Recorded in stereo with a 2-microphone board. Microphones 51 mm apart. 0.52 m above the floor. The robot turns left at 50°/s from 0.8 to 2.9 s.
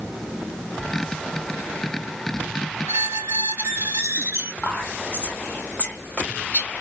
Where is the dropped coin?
I don't hear a dropped coin.